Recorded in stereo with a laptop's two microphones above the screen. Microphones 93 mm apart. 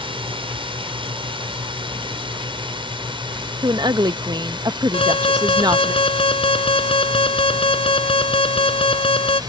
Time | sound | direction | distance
0.0 | a drone | 65° right (ahead or behind) | ?
3.6 | a woman speaking | 50° right (ahead or behind) | ?
4.9 | an alarm | 80° left | ?